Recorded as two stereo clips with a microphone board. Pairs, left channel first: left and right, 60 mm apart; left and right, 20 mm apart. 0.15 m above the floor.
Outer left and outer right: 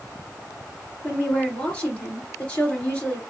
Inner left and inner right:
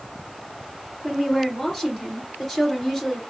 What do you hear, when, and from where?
1.0 s a woman speaking: 15° left (ahead or behind), 2.5 m